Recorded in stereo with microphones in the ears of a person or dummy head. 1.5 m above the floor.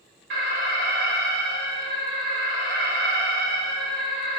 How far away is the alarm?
About 1.7 m.